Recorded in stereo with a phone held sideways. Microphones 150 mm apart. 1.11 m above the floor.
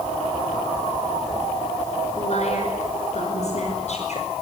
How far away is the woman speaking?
About 5.5 m.